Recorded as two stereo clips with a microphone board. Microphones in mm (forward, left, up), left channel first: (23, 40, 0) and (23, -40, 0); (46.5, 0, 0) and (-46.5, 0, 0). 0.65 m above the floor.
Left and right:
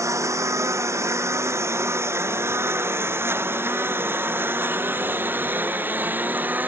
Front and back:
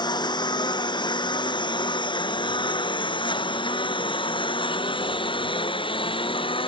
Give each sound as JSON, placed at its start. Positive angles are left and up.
{"t": 0.0, "sound": "a lawn mower", "azimuth_deg": -40}